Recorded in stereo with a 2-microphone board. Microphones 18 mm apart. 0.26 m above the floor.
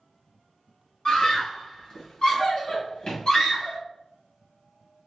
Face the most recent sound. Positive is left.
turn(degrees=45)  # may be behind; listen again after turning